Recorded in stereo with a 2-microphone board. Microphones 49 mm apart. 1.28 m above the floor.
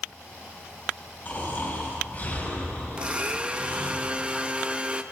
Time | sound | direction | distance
1.2 | snoring | 40° left (ahead or behind) | 6.5 m
3.0 | a blender | 25° right (ahead or behind) | 0.6 m